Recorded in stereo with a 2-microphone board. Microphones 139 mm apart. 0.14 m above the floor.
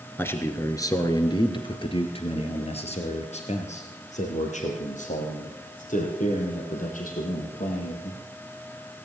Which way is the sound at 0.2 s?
15° left (ahead or behind).